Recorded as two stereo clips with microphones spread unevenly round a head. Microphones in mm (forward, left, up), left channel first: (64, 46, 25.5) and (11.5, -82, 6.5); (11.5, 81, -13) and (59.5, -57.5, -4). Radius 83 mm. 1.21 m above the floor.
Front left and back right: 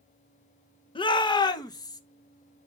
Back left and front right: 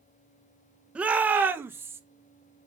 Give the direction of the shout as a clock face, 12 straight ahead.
12 o'clock.